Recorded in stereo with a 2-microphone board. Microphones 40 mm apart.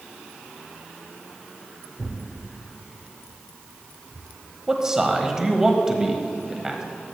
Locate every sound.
2.0 s tearing paper: 75° right (ahead or behind), 2.5 m
4.7 s a man speaking: 15° right (ahead or behind), 1.0 m